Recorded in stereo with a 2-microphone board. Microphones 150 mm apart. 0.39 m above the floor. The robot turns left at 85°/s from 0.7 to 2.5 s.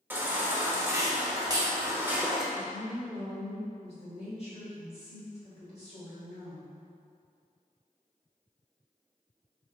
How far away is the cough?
No cough in this recording.